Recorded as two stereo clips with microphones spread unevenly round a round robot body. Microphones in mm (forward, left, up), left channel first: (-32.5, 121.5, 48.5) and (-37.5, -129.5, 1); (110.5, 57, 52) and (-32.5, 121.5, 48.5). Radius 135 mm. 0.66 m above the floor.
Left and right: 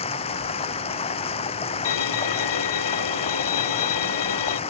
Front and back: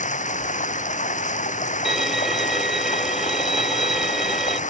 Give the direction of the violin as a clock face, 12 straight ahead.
10 o'clock.